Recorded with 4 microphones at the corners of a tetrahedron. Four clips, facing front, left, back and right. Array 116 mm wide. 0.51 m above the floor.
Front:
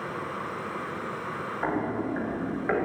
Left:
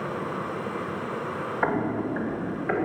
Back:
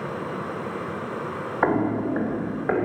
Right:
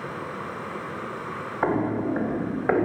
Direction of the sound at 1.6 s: 165° right.